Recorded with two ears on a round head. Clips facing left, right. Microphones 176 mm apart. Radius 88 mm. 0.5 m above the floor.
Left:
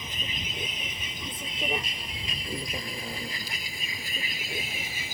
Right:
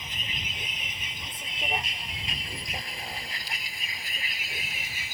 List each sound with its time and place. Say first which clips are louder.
0.0 s a vehicle: left 3 dB; 80° left